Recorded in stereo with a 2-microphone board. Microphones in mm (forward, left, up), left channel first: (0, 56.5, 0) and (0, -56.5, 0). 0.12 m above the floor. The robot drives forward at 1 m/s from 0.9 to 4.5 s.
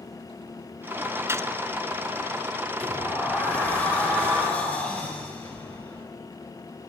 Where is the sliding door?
15° left (ahead or behind), 5.5 m; by 6.0 s 10° left (ahead or behind), 7.5 m.